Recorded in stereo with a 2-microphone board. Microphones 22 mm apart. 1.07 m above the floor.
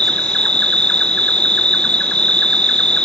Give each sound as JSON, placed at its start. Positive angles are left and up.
{"t": 0.0, "sound": "an insect", "side_deg": 45, "distance_m": 0.7}